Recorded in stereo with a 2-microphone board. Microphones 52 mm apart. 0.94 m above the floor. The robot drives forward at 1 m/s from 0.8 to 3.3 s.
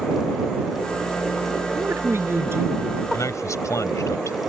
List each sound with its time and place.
1.8 s a woman speaking: 55° right (ahead or behind); by 3.0 s 50° right (ahead or behind)
3.1 s a man speaking: 80° left